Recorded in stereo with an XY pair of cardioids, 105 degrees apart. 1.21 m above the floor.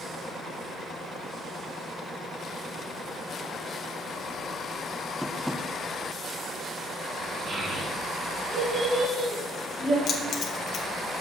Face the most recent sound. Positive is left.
turn(degrees=55)